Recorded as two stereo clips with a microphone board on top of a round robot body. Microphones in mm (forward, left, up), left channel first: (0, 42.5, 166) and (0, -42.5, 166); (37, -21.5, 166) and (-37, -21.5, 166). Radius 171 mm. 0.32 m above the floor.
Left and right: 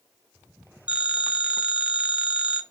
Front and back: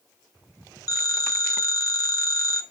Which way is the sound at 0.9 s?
15° right.